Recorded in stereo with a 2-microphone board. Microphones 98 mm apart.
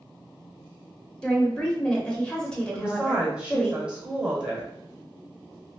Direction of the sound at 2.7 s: 10° right (ahead or behind).